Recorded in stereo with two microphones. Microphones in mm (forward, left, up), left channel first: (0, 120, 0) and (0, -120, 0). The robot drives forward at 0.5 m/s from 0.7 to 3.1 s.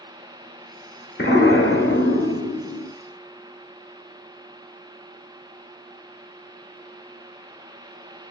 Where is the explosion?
50° left (ahead or behind), 1.2 m; by 2.9 s 85° left, 0.9 m.